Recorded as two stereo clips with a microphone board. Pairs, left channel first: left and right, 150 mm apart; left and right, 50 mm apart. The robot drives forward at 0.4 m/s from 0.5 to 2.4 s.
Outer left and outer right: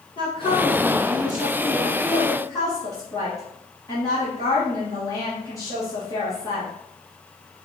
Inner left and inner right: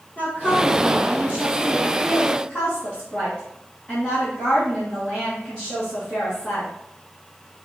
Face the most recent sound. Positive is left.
turn(degrees=25)  # may be behind; listen again after turning